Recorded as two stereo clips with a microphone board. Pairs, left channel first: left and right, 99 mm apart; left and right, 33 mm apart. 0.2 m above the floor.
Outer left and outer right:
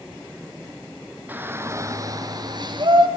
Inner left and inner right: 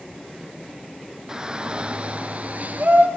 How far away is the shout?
About 2.5 m.